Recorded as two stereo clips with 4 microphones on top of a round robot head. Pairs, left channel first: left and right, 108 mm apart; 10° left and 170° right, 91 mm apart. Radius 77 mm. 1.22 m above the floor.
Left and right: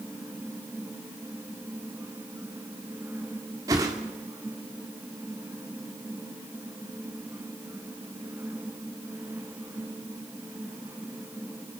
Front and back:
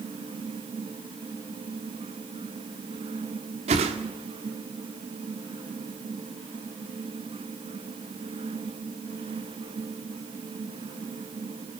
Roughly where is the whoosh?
Behind right.